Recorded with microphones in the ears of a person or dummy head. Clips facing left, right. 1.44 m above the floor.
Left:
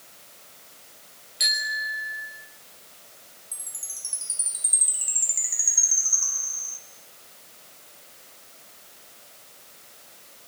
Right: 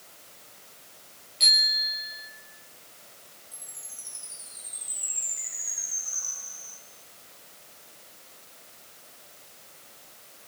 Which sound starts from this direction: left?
A chime, at 3.5 s.